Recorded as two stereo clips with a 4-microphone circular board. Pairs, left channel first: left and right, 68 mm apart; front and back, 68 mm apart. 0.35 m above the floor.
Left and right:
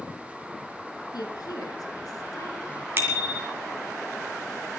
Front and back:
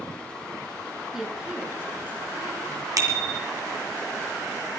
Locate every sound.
1.1 s a woman speaking: 95° left, 4 m; by 2.9 s 130° left, 5 m
3.0 s a bicycle bell: 150° right, 4 m